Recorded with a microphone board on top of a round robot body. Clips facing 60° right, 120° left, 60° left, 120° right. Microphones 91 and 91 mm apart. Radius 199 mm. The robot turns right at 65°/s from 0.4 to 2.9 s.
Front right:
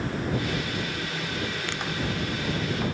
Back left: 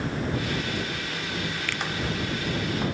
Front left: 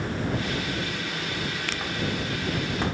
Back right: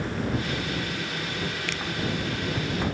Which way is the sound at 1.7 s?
5° left.